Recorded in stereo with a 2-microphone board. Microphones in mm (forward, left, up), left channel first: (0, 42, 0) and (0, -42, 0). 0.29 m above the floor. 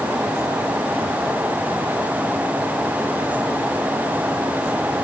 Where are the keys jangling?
No keys jangling in this recording.